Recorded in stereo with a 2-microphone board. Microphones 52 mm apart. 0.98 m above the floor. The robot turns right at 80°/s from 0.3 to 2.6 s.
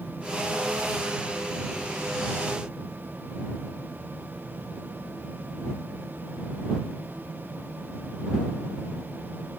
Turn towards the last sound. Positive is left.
No sound to turn to.